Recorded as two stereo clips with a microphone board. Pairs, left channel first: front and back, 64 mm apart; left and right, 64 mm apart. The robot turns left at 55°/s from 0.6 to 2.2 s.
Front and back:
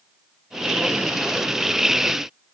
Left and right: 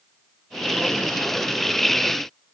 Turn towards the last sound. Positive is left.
No sound to turn to.